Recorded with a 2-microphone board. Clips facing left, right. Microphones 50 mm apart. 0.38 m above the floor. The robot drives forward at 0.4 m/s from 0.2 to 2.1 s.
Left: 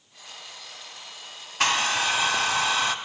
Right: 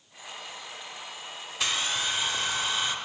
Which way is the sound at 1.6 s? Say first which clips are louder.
Left 6 dB; 60° left (ahead or behind).